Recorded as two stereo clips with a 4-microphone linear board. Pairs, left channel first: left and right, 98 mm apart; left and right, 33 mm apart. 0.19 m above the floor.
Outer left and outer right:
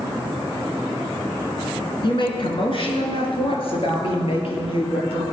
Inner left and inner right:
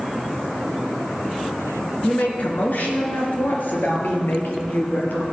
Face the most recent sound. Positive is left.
turn(degrees=65)  # may be behind; listen again after turning